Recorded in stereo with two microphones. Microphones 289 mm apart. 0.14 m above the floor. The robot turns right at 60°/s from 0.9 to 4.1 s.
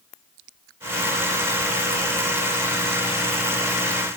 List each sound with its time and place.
Only background noise.